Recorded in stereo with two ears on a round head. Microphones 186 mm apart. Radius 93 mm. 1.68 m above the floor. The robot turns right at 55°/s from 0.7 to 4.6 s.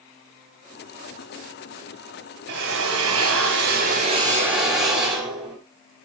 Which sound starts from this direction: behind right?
A drill, at 2.5 s.